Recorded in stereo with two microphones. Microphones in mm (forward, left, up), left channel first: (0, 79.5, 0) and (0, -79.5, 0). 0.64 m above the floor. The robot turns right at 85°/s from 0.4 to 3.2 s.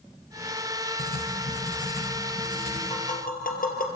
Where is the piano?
I don't hear a piano.